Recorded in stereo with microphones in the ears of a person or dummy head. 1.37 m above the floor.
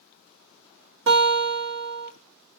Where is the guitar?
60° right (ahead or behind), 0.9 m.